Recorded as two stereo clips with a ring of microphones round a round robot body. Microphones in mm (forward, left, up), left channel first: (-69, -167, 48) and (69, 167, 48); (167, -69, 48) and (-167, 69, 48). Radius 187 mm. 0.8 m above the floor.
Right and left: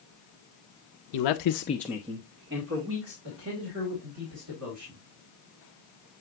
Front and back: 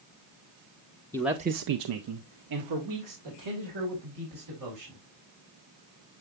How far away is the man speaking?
About 0.9 m.